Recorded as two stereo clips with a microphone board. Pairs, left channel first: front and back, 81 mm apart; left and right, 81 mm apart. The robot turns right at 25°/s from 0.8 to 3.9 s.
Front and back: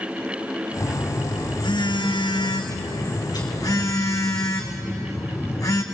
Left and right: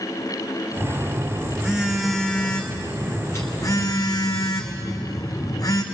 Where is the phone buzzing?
30° right, 2.5 m; by 5.8 s 45° left, 2.5 m.